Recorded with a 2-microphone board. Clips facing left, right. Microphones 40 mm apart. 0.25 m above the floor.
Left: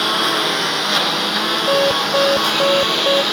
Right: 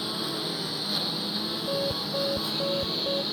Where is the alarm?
75° left (ahead or behind).